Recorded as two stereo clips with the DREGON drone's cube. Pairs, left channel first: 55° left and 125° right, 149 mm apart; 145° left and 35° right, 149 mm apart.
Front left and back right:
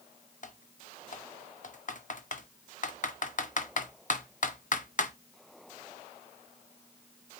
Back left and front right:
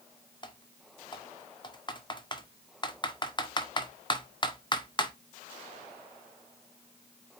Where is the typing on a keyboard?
85° left, 0.5 m.